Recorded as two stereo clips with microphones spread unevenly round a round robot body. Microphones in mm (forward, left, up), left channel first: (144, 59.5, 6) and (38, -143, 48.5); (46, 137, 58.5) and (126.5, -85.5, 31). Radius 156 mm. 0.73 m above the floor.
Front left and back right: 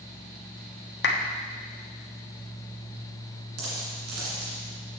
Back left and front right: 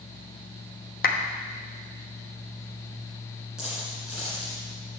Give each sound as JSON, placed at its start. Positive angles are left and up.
{"t": 1.0, "sound": "a clap", "azimuth_deg": 60, "distance_m": 1.2}
{"t": 3.6, "sound": "a dropped coin", "azimuth_deg": -160, "distance_m": 2.0}